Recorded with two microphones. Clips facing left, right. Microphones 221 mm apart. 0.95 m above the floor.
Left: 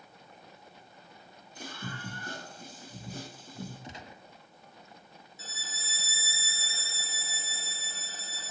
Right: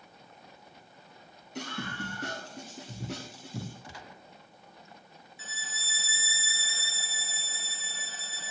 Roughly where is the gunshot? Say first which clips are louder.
Left 2 dB; left.